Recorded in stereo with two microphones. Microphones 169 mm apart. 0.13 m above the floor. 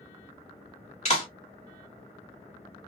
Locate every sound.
1.1 s a clap: 40° left (ahead or behind), 1.6 m